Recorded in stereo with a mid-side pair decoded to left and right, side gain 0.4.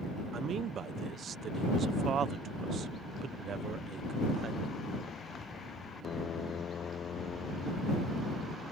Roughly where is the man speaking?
Ahead right.